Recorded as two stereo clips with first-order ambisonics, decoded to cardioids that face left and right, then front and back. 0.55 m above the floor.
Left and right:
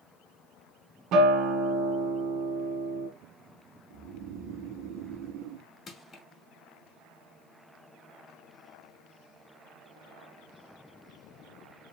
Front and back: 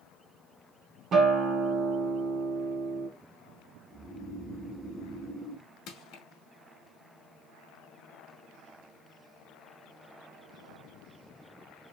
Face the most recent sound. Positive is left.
turn(degrees=25)